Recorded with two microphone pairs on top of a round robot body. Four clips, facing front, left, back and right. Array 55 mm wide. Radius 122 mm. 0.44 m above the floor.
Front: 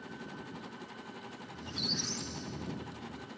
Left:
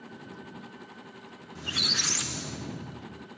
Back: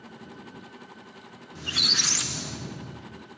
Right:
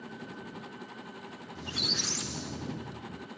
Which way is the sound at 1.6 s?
150° left.